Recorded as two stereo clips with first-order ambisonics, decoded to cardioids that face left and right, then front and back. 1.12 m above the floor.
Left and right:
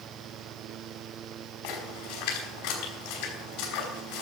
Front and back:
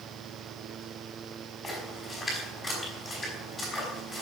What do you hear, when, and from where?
1.6 s a splash: 85° left, 5 m